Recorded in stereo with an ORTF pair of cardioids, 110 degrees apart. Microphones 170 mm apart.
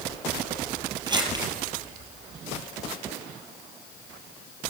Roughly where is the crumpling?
Ahead right.